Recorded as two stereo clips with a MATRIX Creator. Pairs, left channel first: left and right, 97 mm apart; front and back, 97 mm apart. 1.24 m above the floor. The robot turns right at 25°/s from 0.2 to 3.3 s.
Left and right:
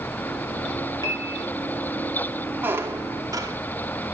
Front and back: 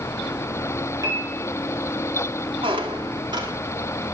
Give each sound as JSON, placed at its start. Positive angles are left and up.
{"t": 1.0, "sound": "a piano", "azimuth_deg": 135, "distance_m": 4.5}
{"t": 2.6, "sound": "a squeak", "azimuth_deg": -160, "distance_m": 2.5}